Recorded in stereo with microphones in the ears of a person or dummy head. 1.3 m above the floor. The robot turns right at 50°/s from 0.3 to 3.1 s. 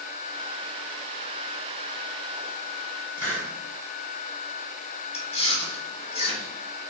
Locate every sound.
3.2 s a hiss: 10° left (ahead or behind), 1.3 m
5.1 s chewing: 35° left (ahead or behind), 1.1 m